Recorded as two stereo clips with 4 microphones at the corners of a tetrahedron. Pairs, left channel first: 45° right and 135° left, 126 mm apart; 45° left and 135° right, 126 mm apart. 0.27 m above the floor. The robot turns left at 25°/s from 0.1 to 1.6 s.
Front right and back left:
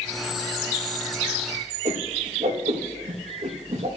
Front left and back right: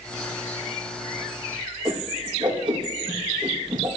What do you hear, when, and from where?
1.9 s a whoosh: 170° left, 2.5 m